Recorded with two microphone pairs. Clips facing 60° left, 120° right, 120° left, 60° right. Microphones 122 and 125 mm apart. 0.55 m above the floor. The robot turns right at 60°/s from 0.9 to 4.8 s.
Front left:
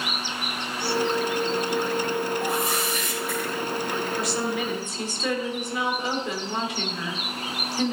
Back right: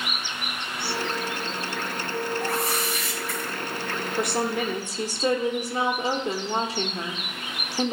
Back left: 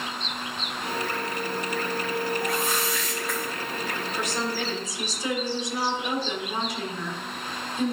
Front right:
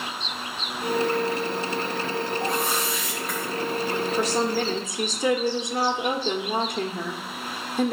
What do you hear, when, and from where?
2.4 s a whoosh: 25° right, 3.5 m; by 3.5 s 40° left, 3.5 m
4.2 s a woman speaking: 110° right, 1.2 m; by 7.9 s 75° right, 1.2 m